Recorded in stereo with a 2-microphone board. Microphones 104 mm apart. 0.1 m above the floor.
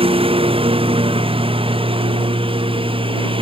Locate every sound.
0.0 s a lawn mower: 60° right (ahead or behind)